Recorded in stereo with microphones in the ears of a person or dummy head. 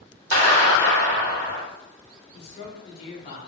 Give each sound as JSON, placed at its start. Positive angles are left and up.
{"t": 0.3, "sound": "a clap", "side_deg": -65, "distance_m": 1.9}
{"t": 2.3, "sound": "a man speaking", "side_deg": 25, "distance_m": 0.8}